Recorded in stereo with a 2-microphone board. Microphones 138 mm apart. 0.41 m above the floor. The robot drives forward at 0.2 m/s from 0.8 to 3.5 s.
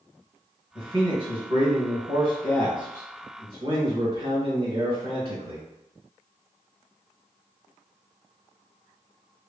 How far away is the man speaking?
About 1.1 m.